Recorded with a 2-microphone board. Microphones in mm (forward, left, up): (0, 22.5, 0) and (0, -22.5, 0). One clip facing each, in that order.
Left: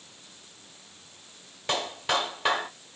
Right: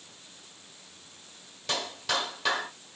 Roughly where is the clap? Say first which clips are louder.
Left 3 dB; left.